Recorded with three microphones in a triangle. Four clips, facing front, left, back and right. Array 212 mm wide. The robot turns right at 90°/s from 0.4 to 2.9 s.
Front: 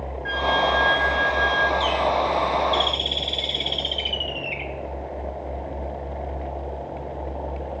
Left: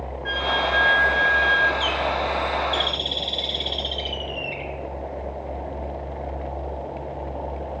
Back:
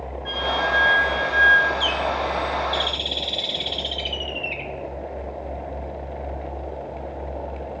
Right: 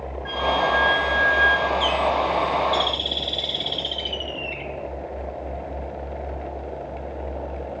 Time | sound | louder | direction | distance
0.2 | a flute | right 3 dB, front 3 dB | 75° left | 6 m
1.8 | a bird | right 3 dB, front 3 dB | 95° right | 0.6 m